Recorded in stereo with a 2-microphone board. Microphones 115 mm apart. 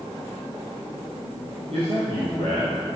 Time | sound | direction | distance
1.7 | a man speaking | 55° right (ahead or behind) | 3.5 m